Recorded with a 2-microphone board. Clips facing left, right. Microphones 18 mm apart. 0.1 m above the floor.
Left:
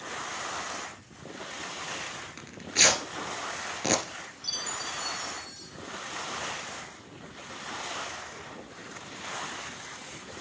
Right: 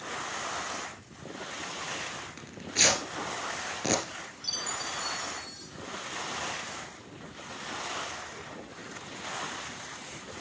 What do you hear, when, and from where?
2.4 s tearing paper: 10° left (ahead or behind), 1.5 m
4.4 s a chime: centre (ahead or behind), 1.5 m